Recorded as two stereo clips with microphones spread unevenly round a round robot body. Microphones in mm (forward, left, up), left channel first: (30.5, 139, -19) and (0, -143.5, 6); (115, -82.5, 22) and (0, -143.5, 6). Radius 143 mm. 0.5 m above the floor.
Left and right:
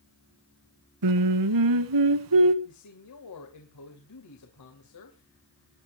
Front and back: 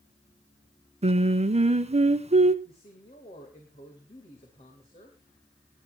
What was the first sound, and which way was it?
Singing, 110° right.